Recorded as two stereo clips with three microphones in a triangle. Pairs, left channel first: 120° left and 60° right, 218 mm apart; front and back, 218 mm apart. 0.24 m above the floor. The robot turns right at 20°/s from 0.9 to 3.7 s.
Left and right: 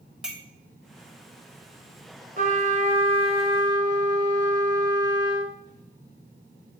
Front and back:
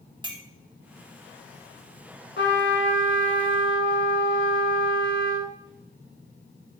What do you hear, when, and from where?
0.2 s a clink: 145° right, 0.6 m
2.4 s a trumpet: 20° right, 0.7 m; by 5.5 s 10° left, 0.7 m